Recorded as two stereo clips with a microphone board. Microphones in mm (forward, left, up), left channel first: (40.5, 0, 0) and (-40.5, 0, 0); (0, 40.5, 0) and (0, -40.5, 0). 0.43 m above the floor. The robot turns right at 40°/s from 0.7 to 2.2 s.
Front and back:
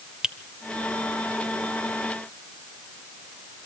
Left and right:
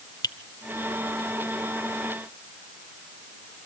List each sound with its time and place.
0.2 s a finger snap: 100° left, 0.9 m